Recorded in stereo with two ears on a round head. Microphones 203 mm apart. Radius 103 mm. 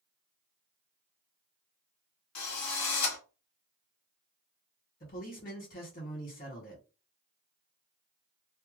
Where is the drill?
80° left, 1.4 m.